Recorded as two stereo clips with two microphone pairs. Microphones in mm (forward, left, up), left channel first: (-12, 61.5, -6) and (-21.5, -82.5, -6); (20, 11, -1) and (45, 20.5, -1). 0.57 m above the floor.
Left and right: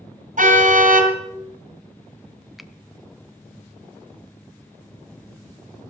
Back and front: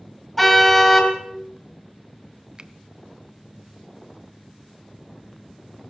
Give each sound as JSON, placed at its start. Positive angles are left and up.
{"t": 0.4, "sound": "a car horn", "azimuth_deg": -75, "distance_m": 2.5}
{"t": 2.6, "sound": "a finger snap", "azimuth_deg": -5, "distance_m": 0.5}